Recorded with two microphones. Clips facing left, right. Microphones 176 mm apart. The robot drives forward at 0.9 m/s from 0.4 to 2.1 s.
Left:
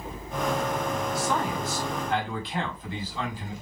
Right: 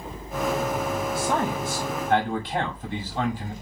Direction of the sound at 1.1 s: 55° right (ahead or behind).